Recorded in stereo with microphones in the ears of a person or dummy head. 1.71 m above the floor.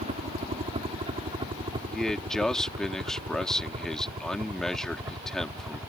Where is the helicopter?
35° right (ahead or behind); by 5.9 s 15° right (ahead or behind).